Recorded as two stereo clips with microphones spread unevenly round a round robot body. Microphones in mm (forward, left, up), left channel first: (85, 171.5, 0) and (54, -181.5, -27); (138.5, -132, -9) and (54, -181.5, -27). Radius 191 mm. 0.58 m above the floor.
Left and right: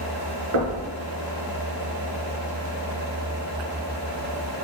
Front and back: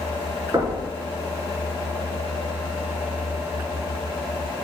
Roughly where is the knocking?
Right.